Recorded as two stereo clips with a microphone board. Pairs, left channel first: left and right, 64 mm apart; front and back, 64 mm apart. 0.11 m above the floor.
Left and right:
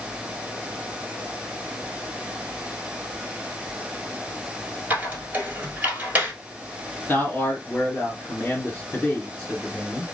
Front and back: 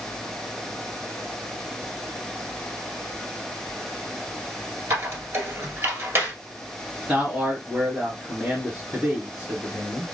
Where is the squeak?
150° right, 1.5 m.